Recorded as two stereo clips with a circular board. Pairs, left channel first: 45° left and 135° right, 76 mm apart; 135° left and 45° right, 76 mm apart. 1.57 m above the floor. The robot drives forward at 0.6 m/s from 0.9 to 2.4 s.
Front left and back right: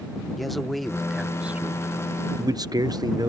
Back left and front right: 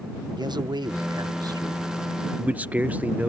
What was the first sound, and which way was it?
A man speaking, 45° right.